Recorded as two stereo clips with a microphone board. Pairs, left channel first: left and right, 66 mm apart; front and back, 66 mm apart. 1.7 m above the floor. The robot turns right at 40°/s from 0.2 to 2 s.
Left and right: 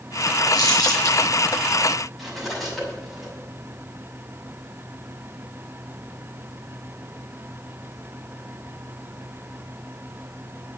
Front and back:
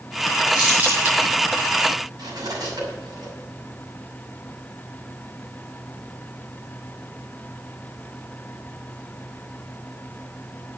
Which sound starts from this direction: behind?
Cutlery clinking, at 2.2 s.